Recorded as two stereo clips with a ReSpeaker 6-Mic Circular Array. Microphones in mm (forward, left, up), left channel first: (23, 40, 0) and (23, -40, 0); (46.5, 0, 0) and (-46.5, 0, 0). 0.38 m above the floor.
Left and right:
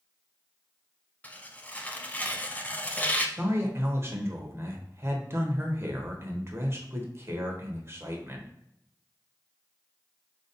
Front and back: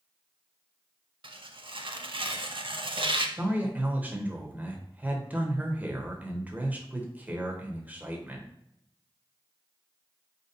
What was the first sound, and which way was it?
Tearing paper, 160° left.